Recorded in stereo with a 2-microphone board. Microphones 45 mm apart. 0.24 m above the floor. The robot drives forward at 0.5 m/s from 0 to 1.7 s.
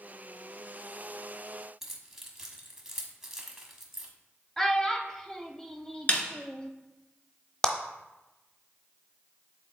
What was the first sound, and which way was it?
Keys jangling, 10° right (ahead or behind).